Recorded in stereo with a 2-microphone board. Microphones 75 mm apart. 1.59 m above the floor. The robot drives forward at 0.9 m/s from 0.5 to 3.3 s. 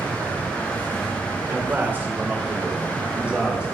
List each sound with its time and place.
1.5 s a man speaking: 30° right (ahead or behind), 1.9 m; by 3.6 s 15° right (ahead or behind), 3.5 m